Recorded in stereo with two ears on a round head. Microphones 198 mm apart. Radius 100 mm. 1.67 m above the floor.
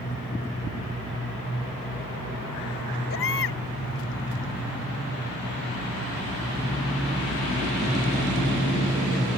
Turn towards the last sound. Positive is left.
turn(degrees=65)  # may be behind; listen again after turning